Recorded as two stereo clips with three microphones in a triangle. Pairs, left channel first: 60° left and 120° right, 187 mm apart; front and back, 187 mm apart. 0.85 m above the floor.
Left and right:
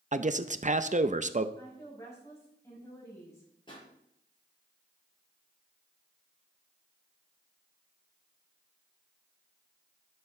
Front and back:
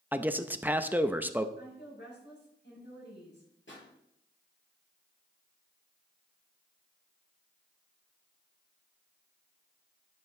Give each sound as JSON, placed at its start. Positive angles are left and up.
{"t": 0.1, "sound": "a man speaking", "azimuth_deg": -105, "distance_m": 0.5}
{"t": 1.6, "sound": "a woman speaking", "azimuth_deg": -15, "distance_m": 6.0}
{"t": 3.7, "sound": "a pop", "azimuth_deg": -5, "distance_m": 6.0}